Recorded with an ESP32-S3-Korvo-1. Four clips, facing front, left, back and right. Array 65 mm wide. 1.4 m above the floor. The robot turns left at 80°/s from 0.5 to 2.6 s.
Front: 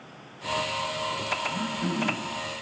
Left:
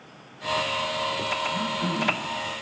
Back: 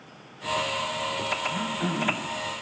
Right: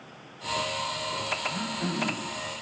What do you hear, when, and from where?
1.4 s throat clearing: 140° right, 8.5 m; by 2.4 s 145° left, 8.5 m